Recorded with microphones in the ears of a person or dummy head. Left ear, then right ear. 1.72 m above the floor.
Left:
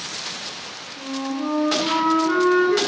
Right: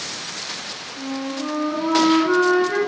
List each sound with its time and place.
1.0 s a flute: 20° right (ahead or behind), 1.2 m